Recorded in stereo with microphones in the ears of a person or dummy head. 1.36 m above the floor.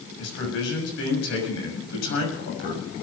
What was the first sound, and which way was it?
A man speaking, 80° left.